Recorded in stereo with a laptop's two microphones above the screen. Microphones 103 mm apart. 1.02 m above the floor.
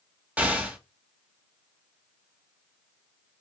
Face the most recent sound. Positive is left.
turn(degrees=-10)  # may be behind; listen again after turning